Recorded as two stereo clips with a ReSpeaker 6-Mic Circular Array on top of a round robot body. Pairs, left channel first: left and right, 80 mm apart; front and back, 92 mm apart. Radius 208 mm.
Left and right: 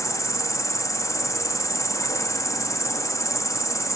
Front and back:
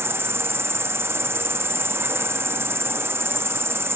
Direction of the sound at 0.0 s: 125° left.